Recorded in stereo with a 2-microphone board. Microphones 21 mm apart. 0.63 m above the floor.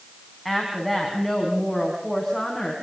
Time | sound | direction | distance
0.5 | a woman speaking | centre (ahead or behind) | 5.5 m